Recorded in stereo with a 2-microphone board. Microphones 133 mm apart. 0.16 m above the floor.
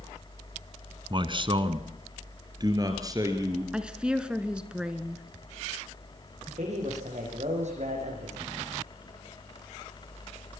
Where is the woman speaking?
5° right (ahead or behind), 1.7 m.